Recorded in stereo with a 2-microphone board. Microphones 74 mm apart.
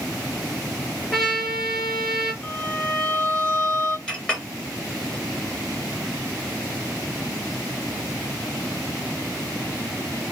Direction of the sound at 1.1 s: 5° left (ahead or behind).